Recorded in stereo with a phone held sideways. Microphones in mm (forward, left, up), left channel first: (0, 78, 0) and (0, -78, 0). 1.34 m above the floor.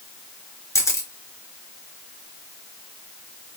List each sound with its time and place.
0.8 s a camera shutter: 20° left (ahead or behind), 0.9 m